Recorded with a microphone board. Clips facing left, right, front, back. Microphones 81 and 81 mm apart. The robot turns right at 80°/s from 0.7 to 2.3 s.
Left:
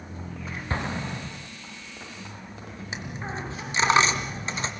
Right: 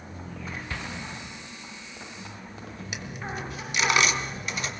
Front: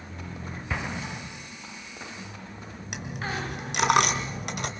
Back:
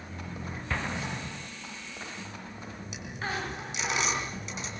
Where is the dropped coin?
30° left, 2 m.